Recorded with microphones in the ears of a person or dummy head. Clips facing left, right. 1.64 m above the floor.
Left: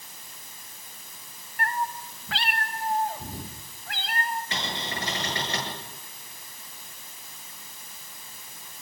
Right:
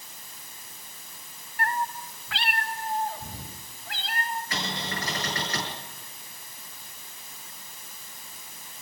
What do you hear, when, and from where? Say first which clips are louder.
1.6 s a cat meowing: even; 20° right (ahead or behind), 0.8 m; by 4.4 s 50° left (ahead or behind), 4 m
4.5 s a cupboard door: even; 25° left (ahead or behind), 8 m